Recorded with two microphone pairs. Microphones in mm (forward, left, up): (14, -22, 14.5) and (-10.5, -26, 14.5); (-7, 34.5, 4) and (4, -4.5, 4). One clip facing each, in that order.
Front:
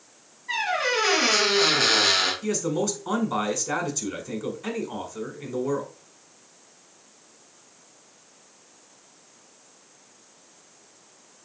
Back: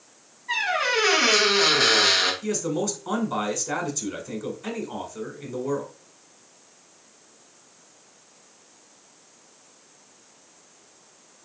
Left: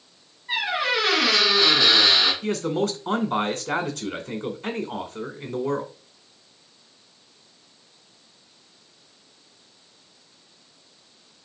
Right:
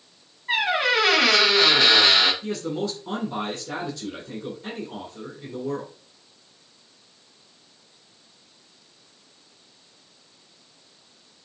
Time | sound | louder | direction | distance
0.5 | a squeak | back 1 dB, right 3 dB | 90° right | 1.8 m
2.4 | a man speaking | front 1 dB, left 4 dB | 85° left | 1.7 m